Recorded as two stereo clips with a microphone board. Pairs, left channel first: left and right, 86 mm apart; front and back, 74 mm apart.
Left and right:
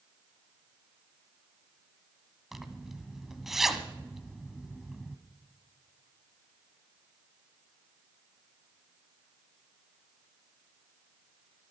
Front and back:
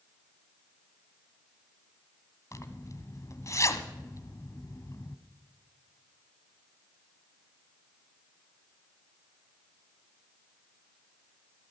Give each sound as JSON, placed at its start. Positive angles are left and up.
{"t": 2.5, "sound": "a zipper", "azimuth_deg": -5, "distance_m": 1.3}